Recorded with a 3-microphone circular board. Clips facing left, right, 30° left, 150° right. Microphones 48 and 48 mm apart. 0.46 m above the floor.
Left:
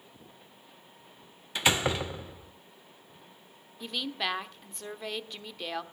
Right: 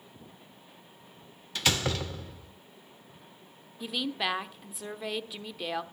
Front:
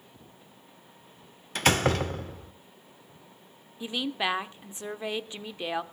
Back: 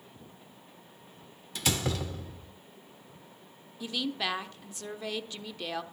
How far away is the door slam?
About 0.5 m.